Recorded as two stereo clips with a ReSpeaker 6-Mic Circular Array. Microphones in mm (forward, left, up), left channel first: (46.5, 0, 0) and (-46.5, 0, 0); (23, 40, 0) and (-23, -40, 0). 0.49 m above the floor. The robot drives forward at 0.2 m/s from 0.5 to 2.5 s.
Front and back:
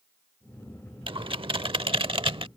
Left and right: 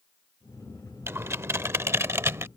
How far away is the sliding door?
I don't hear a sliding door.